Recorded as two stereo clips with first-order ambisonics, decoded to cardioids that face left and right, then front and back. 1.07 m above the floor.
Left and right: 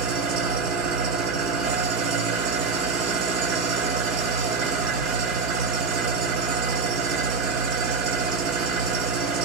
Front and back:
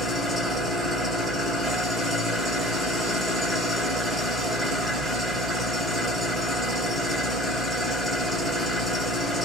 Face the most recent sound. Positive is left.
turn(degrees=-95)